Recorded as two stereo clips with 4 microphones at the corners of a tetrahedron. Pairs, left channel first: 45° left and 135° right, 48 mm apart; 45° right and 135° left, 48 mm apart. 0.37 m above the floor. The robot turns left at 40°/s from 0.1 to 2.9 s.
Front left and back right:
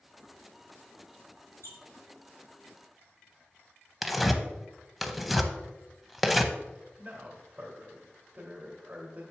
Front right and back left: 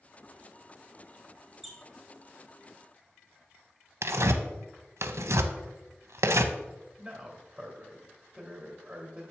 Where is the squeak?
50° left, 2 m; by 1.8 s 45° left, 2 m.